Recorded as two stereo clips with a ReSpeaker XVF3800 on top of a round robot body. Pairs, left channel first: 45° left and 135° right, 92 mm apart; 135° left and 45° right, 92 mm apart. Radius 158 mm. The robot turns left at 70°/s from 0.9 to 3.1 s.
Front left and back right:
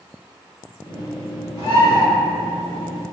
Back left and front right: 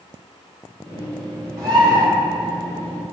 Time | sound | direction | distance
1.6 | a bird | 15° left | 1.6 m